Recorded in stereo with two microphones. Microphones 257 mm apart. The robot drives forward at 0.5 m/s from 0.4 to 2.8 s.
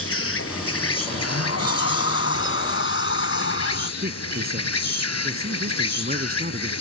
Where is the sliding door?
75° left (ahead or behind); by 3.9 s 55° left (ahead or behind).